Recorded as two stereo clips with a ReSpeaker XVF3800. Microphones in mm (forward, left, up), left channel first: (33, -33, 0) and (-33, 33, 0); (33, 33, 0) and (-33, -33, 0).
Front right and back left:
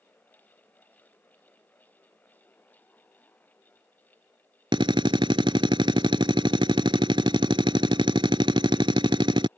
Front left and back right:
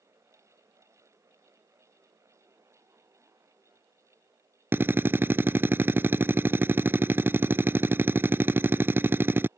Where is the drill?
160° left.